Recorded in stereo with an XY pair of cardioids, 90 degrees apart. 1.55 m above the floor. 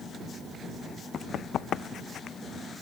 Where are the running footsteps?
70° left.